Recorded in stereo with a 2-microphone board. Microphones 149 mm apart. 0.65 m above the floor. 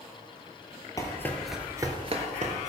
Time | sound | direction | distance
1.0 | running footsteps | 25° left (ahead or behind) | 1.1 m